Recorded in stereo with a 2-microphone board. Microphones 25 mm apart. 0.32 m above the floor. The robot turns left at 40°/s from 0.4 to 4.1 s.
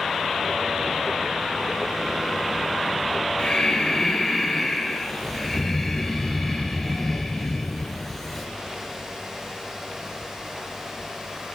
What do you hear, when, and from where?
3.4 s breathing: 40° left (ahead or behind), 4 m; by 8.5 s 10° left (ahead or behind), 4 m